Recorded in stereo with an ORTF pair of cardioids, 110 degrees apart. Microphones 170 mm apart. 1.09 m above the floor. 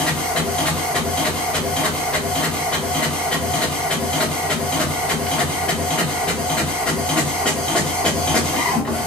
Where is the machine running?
5° left, 1.0 m.